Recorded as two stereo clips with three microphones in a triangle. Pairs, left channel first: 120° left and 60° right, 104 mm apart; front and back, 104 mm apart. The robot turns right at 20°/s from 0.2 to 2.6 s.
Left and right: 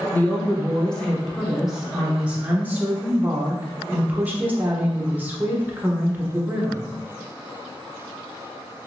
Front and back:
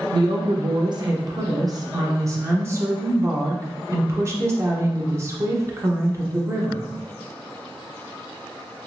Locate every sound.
0.1 s a woman speaking: 175° right, 0.6 m; by 6.9 s 130° right, 0.6 m